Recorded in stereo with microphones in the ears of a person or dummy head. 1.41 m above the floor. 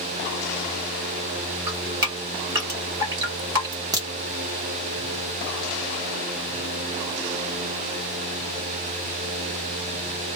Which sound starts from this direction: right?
Dripping, at 1.7 s.